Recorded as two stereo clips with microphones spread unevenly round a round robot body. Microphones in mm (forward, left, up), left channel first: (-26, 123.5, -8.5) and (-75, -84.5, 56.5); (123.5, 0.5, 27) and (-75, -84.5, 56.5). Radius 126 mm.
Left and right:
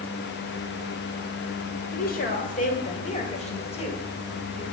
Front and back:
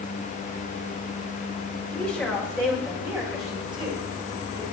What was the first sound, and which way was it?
A woman speaking, 105° left.